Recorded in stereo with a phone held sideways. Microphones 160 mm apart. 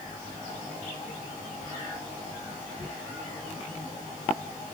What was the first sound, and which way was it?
Only background noise.